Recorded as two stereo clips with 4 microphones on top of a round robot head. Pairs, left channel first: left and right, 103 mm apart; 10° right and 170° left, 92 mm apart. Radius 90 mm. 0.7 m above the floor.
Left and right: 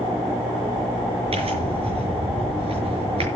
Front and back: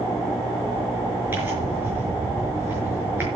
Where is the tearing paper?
120° right, 6 m.